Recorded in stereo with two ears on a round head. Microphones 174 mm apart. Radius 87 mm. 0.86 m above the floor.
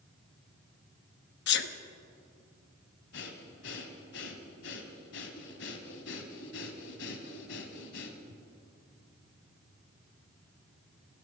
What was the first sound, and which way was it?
A sneeze, 55° left (ahead or behind).